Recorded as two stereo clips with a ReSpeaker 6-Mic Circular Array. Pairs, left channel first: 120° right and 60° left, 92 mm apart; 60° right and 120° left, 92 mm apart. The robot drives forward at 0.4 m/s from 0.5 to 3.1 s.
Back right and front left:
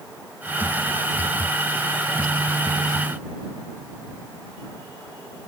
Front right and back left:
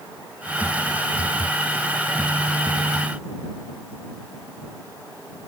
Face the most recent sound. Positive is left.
No sound to turn to.